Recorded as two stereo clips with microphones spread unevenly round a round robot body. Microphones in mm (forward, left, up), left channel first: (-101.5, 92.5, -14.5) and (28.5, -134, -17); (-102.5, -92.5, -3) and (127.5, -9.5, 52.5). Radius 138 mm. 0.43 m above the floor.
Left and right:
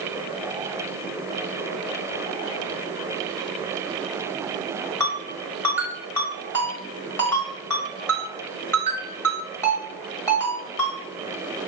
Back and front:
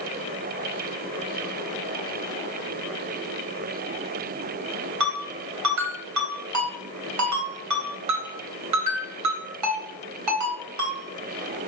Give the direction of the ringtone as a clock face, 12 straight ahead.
11 o'clock.